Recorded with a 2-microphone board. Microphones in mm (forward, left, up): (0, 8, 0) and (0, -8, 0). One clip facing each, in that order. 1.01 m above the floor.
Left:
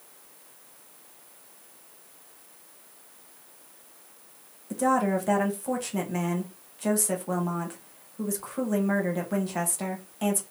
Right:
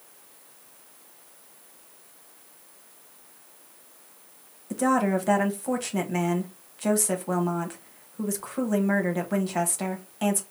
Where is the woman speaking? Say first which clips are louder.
Right 1 dB; 15° right (ahead or behind), 0.8 m.